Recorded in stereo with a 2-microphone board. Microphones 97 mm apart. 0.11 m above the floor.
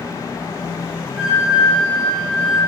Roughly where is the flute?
Centre.